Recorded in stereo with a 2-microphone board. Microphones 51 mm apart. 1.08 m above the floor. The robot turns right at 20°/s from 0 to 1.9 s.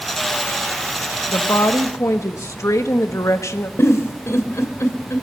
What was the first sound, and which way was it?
A woman speaking, 80° left.